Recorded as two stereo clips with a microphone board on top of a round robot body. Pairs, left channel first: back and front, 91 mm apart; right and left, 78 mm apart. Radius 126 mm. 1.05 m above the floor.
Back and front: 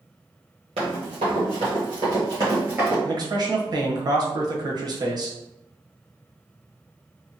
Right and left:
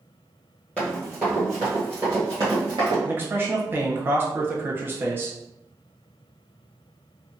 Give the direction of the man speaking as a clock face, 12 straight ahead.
11 o'clock.